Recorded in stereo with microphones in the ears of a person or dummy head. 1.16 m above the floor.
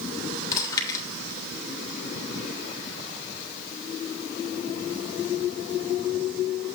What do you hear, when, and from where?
0.5 s chewing: 15° left (ahead or behind), 1.8 m